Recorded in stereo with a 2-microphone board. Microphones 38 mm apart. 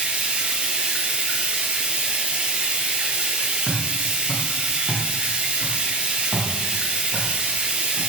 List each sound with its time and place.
0.0 s running water: 30° right (ahead or behind), 1.3 m
3.7 s footsteps: 40° left (ahead or behind), 3 m; by 8.0 s 30° left (ahead or behind), 3 m